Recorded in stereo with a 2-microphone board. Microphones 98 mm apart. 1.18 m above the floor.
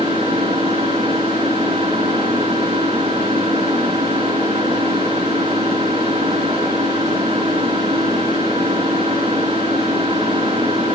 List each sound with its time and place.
0.0 s an engine running: 80° right, 4 m